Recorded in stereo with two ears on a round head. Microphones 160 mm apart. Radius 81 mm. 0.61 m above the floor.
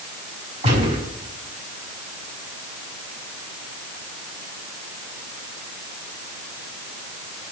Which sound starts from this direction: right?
A gunshot, at 0.6 s.